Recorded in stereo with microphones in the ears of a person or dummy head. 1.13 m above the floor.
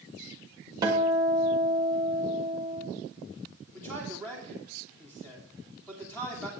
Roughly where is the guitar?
Centre.